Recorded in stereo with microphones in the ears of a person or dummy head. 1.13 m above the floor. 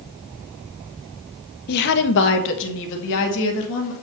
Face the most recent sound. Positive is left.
turn(degrees=70)  # may be behind; listen again after turning